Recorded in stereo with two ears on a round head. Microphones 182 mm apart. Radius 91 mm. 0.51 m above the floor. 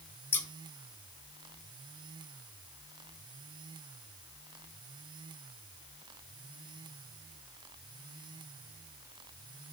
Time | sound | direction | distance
0.3 | scissors | 10° left (ahead or behind) | 1.4 m